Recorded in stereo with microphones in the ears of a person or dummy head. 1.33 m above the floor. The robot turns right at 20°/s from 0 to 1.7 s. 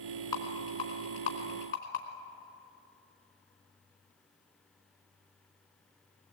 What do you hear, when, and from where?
0.3 s a rattle: 20° left (ahead or behind), 3 m; by 2.0 s 45° left (ahead or behind), 3 m